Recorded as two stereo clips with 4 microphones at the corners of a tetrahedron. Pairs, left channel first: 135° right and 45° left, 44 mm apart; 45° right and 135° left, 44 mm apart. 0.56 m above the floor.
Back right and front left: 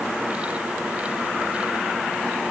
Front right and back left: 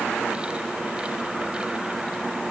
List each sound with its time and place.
Only background noise.